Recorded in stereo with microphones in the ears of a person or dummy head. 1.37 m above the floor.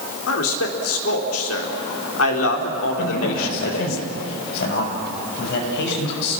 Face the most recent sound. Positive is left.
turn(degrees=65)  # may be behind; listen again after turning